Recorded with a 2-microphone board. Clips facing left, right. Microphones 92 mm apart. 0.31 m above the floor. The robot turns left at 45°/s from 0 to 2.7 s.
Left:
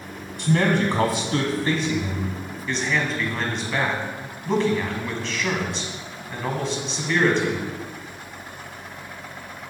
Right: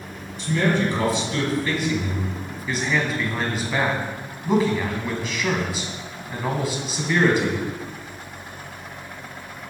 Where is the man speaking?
95° left, 2.0 m; by 7.6 s 10° right, 2.0 m.